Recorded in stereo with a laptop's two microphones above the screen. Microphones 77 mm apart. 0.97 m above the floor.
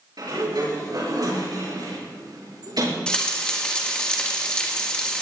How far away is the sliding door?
About 6 m.